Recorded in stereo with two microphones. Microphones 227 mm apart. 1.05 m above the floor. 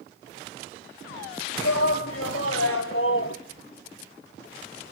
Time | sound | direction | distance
1.6 | a shout | 85° left | 2 m